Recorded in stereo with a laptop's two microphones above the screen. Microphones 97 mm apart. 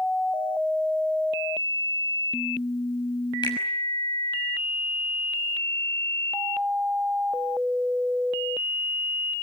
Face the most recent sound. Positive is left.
turn(degrees=50)  # may be behind; listen again after turning